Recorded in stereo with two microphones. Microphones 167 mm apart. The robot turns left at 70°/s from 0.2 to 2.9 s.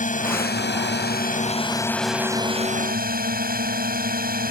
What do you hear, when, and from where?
0.0 s a drone: 130° left; by 4.5 s 60° right